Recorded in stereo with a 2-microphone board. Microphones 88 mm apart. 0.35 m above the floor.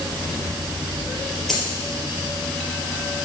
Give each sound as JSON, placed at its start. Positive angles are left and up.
{"t": 1.5, "sound": "a dropped coin", "side_deg": 5, "distance_m": 3.0}